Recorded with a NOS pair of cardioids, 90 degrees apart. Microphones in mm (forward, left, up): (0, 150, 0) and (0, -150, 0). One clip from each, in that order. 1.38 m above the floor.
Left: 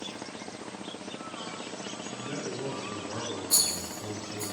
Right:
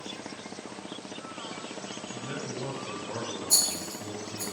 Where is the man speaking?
50° right, 1.8 m; by 4.5 s 10° right, 0.9 m.